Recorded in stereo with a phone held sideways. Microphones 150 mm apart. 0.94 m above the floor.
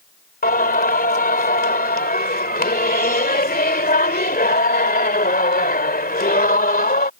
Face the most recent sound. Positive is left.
turn(degrees=90)